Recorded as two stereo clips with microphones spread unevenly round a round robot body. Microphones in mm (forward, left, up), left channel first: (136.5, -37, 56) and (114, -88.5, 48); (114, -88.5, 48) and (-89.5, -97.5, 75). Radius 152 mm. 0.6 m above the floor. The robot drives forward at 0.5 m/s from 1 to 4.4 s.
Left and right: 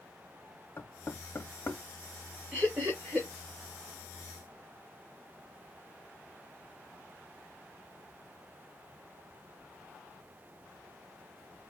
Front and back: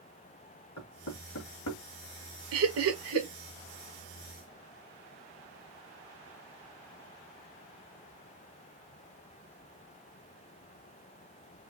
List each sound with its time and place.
0.8 s knocking: 15° left, 2.5 m; by 1.8 s 20° left, 2 m
2.5 s laughter: 170° left, 1.8 m; by 3.3 s 175° left, 2 m